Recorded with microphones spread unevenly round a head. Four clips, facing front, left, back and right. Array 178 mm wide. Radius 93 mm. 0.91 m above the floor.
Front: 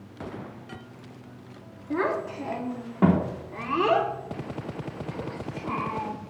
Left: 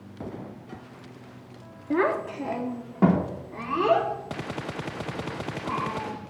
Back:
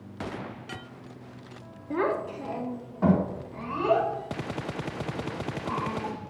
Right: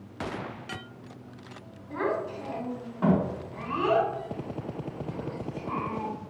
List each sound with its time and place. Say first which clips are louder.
1.9 s a child speaking: left 5 dB, front 1 dB; 70° left, 1.0 m; by 6.1 s 15° left, 3 m